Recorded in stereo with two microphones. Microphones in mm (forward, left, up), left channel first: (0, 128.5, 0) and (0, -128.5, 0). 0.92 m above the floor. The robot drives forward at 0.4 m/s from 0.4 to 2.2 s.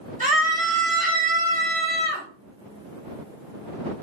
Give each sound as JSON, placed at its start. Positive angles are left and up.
{"t": 0.2, "sound": "a scream", "side_deg": -30, "distance_m": 1.4}